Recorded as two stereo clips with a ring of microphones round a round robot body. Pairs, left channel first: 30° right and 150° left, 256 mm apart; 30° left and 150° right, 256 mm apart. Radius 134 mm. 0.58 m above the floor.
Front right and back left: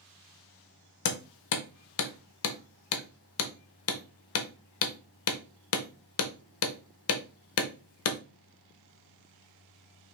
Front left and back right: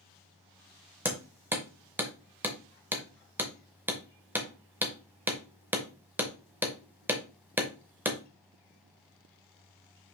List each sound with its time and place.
1.1 s hammering: 65° right, 0.7 m